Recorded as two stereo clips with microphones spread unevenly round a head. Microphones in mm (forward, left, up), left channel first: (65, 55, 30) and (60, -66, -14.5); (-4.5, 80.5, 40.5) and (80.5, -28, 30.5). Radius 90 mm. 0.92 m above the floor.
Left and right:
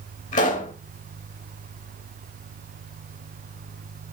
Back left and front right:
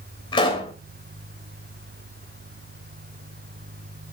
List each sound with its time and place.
0.3 s a pop: 75° left, 3 m